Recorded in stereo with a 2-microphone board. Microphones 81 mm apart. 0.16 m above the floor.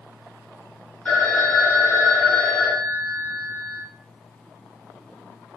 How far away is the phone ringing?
About 1.1 m.